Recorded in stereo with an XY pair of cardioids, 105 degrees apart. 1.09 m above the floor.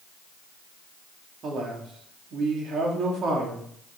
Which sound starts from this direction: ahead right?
A man speaking, at 1.4 s.